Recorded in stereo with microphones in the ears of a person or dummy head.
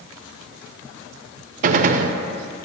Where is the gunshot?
40° right (ahead or behind), 0.5 m.